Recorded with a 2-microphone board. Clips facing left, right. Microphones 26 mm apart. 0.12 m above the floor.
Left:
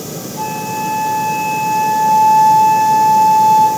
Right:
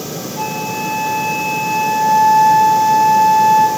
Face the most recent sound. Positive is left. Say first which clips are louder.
# left 1 dB
turn(degrees=-15)  # may be behind; listen again after turning